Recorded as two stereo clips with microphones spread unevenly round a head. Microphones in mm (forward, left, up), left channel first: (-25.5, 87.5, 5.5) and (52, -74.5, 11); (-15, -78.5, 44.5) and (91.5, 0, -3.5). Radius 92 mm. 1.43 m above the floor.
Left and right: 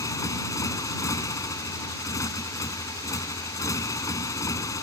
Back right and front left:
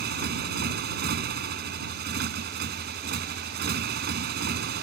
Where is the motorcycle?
40° left.